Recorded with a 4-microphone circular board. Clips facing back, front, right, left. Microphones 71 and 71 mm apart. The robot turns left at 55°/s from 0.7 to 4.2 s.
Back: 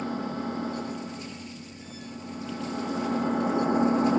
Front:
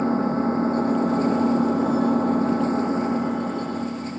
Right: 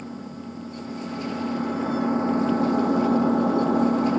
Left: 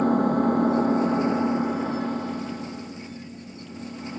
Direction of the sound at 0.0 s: 60° left.